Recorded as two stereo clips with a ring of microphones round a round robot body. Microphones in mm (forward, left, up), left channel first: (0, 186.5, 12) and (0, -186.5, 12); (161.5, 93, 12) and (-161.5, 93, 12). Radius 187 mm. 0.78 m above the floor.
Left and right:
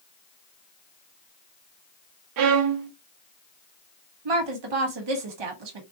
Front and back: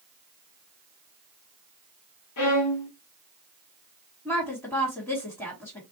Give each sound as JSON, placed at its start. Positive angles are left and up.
{"t": 2.4, "sound": "a violin", "azimuth_deg": -50, "distance_m": 0.6}
{"t": 4.2, "sound": "a woman speaking", "azimuth_deg": -85, "distance_m": 1.3}